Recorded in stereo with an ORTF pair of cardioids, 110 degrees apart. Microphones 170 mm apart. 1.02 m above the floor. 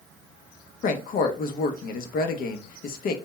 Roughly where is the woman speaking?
Ahead left.